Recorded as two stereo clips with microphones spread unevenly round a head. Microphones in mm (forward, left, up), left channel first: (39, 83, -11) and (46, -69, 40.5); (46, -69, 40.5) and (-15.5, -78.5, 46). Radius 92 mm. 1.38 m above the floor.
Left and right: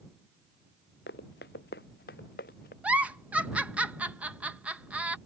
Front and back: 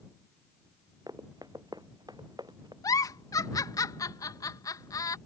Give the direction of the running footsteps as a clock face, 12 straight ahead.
8 o'clock.